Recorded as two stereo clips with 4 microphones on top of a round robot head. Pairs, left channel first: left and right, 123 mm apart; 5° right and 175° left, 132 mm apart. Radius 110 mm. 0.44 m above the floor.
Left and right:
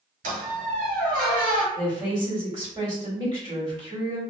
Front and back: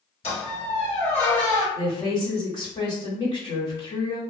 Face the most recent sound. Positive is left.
turn(degrees=-50)